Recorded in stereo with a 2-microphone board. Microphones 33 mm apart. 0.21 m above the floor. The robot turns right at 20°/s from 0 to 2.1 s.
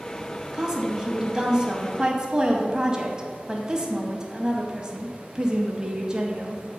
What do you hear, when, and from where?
0.5 s a woman speaking: 15° right (ahead or behind), 1.0 m; by 6.6 s 20° right (ahead or behind), 1.0 m